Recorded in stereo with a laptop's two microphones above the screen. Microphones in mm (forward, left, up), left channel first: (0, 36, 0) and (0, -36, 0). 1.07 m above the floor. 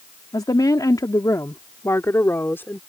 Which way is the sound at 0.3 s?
70° left (ahead or behind).